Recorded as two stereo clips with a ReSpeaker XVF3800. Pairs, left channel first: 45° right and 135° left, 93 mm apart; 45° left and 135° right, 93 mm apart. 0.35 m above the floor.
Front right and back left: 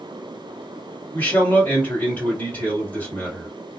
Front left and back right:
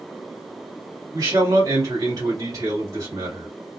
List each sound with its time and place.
1.1 s a man speaking: 110° right, 1.8 m